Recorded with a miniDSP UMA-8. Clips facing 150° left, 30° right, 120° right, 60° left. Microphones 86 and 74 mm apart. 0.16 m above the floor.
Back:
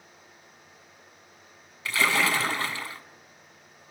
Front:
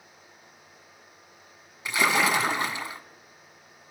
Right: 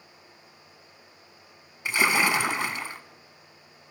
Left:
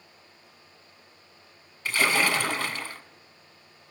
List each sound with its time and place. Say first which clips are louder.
1.9 s a splash: front 1 dB, right 1 dB; 75° right, 1.1 m